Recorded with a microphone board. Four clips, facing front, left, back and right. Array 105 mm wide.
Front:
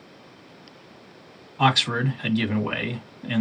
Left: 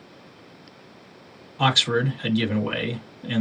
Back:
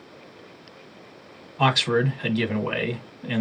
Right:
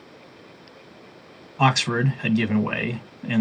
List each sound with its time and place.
1.6 s a man speaking: 90° right, 1.2 m